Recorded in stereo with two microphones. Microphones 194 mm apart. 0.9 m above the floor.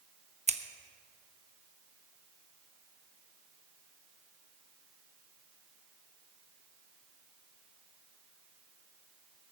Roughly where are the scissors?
Right.